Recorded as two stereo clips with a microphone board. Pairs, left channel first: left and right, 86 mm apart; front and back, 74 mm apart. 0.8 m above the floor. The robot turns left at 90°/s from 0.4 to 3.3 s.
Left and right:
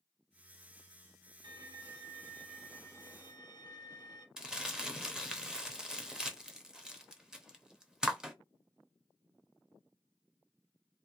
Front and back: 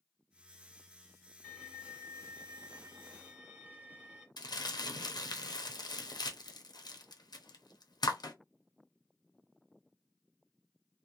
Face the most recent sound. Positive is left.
turn(degrees=-5)